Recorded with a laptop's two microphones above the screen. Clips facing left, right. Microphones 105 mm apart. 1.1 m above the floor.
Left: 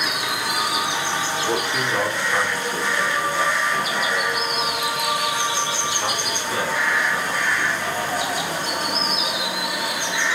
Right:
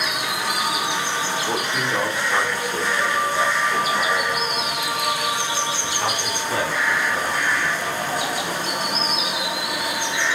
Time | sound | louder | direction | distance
1.5 | a man speaking | left 1 dB | 10° left (ahead or behind) | 2.5 m